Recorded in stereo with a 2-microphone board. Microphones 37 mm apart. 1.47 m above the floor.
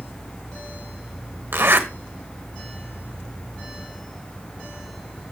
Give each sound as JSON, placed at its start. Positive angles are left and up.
{"t": 1.5, "sound": "a zipper", "side_deg": -75, "distance_m": 1.2}